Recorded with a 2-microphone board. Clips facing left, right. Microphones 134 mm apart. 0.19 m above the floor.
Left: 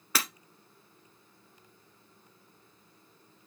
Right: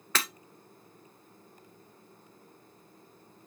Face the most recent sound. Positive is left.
turn(degrees=10)  # may be behind; listen again after turning